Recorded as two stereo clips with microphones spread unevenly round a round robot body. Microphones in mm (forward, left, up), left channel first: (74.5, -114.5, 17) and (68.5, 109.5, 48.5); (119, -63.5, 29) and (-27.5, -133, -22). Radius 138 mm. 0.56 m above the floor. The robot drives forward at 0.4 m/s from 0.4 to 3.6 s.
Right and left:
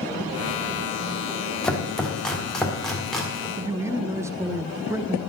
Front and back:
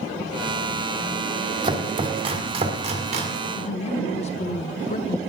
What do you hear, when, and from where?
1.6 s chopping: 165° right, 1.5 m; by 3.5 s 170° right, 2 m
3.6 s a man speaking: 10° left, 0.8 m; by 5.2 s 15° left, 0.8 m